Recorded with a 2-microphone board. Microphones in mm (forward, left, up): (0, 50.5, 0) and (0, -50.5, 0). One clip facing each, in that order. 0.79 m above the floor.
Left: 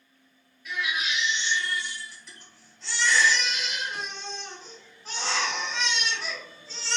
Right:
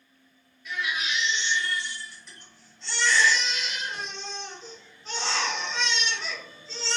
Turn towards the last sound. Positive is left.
turn(degrees=0)  # may be behind; listen again after turning